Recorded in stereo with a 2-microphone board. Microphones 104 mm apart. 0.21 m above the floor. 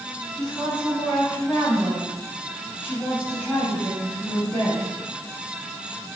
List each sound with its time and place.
0.3 s a woman speaking: 5° left (ahead or behind), 1.5 m; by 4.9 s 15° left (ahead or behind), 1.7 m